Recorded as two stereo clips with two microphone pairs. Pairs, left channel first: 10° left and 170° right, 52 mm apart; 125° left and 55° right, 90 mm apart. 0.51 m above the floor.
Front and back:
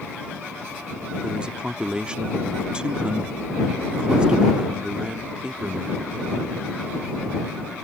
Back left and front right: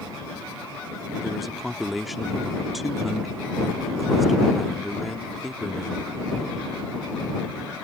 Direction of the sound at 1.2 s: 145° right.